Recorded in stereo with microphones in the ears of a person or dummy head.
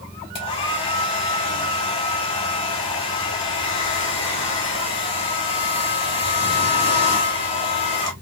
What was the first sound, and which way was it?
A hair dryer, 25° left (ahead or behind).